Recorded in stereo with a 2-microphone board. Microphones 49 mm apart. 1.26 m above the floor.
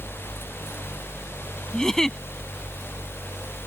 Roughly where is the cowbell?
No cowbell in this recording.